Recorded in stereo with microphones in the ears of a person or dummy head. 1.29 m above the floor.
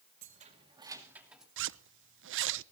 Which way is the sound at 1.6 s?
60° right (ahead or behind).